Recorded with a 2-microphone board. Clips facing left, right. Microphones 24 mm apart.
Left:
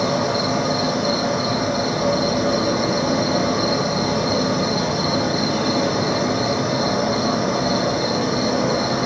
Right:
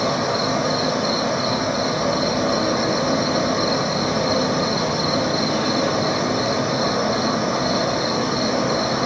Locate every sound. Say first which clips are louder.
0.0 s an insect: left 1 dB; 10° right (ahead or behind), 0.9 m